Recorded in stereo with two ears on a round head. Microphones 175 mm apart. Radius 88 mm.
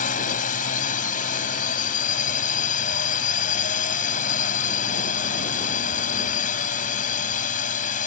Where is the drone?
45° left (ahead or behind).